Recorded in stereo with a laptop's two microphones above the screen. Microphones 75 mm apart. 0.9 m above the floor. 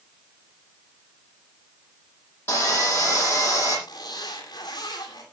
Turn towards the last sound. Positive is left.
turn(degrees=60)  # may be behind; listen again after turning